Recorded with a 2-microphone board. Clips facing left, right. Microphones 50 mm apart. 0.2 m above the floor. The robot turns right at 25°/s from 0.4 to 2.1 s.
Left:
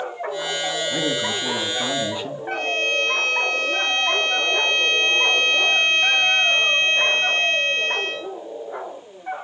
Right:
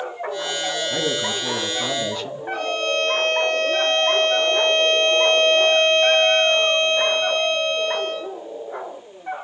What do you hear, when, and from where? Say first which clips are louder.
0.9 s a man speaking: even; 10° right, 1.8 m; by 2.4 s 20° left, 1.8 m
2.5 s a violin: even; 70° left (ahead or behind), 5 m